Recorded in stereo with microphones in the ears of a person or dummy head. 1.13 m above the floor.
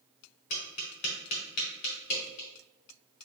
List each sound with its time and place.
0.5 s tapping: 45° left (ahead or behind), 1.1 m